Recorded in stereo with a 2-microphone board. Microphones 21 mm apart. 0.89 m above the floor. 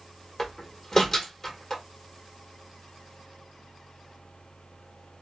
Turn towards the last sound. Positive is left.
turn(degrees=20)  # may be behind; listen again after turning